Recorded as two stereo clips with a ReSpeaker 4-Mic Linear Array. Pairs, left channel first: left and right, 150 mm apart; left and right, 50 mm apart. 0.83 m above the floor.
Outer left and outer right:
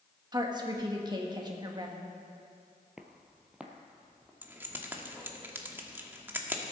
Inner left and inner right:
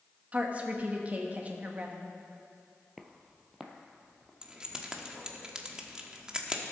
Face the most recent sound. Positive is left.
turn(degrees=-15)  # may be behind; listen again after turning